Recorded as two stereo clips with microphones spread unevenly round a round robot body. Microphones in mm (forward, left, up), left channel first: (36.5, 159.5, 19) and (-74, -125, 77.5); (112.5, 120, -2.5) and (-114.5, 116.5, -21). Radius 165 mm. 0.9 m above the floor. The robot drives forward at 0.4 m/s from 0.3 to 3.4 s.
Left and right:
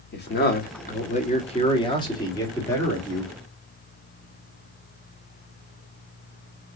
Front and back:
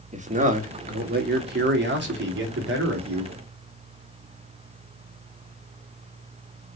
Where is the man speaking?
125° left, 1.3 m; by 3.3 s 150° left, 2 m.